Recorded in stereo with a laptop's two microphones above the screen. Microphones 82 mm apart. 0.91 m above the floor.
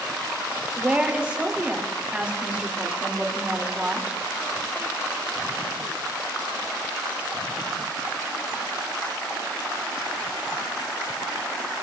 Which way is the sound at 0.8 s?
15° right (ahead or behind).